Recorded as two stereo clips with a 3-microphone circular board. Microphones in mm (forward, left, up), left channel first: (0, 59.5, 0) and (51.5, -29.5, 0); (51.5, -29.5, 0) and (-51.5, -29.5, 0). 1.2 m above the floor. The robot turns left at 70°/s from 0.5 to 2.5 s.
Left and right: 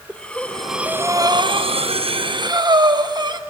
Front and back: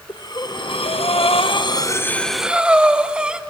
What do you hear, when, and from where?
0.1 s breathing: 40° left, 0.9 m; by 3.4 s 100° right, 0.9 m